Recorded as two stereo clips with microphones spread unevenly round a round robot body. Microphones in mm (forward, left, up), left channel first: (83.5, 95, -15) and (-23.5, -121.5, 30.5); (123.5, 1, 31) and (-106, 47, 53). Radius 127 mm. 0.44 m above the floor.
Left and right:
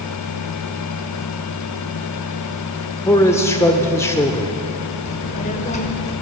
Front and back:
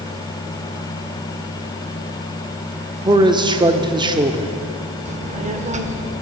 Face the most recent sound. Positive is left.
turn(degrees=110)